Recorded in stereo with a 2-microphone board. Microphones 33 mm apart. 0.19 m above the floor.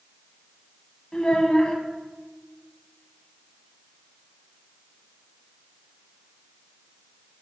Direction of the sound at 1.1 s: 25° left (ahead or behind).